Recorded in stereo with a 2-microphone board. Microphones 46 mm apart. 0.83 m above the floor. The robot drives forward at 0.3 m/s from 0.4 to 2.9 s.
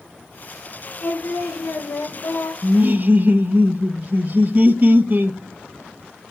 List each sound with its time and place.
1.0 s singing: 80° left, 0.9 m; by 2.5 s 60° left (ahead or behind), 1.0 m
2.6 s laughter: 35° right (ahead or behind), 0.5 m; by 5.4 s 40° right (ahead or behind), 0.5 m